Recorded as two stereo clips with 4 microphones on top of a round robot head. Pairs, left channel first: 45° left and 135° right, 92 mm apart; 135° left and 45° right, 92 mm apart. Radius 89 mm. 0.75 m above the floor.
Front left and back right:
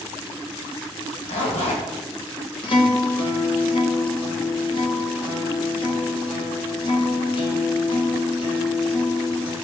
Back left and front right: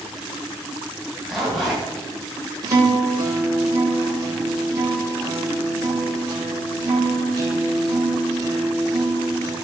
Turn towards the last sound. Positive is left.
turn(degrees=10)